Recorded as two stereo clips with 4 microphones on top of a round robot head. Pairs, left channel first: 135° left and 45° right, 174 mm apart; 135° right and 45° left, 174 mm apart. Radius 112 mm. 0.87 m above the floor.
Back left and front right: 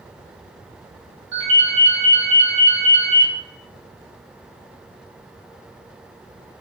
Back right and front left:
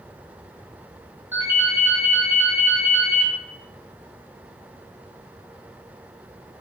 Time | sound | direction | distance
1.3 | a ringtone | 35° right | 2.0 m